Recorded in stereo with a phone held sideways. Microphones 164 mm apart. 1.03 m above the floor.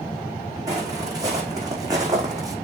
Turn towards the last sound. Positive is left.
turn(degrees=-20)  # may be behind; listen again after turning